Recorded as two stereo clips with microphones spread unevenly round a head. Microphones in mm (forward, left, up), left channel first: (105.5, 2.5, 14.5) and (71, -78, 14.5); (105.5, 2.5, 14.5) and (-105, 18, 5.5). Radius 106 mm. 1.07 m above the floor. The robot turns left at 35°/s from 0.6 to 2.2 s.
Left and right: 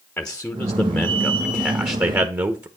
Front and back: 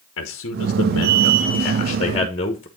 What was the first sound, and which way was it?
A man speaking, 10° right.